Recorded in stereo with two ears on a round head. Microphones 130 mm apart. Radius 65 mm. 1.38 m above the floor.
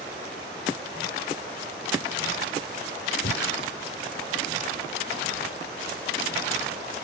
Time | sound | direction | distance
3.2 | breathing | 85° left | ?